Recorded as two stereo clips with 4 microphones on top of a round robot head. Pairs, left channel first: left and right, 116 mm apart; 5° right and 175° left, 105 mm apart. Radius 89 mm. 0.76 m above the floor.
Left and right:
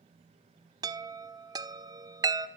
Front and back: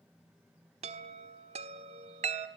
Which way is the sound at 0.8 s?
145° right.